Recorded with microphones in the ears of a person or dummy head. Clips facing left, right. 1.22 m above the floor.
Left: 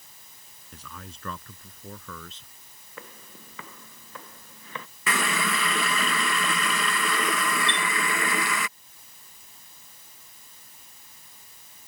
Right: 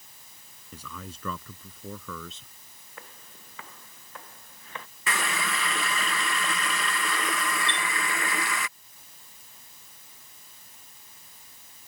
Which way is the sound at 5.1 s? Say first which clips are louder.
Left 3 dB; 65° left (ahead or behind).